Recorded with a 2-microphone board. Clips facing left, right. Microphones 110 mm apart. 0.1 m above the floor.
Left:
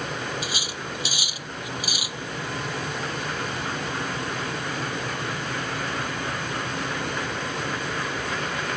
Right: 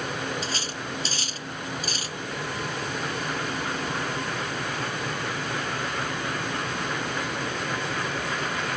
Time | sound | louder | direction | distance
0.4 | cutlery clinking | even | 10° left (ahead or behind) | ?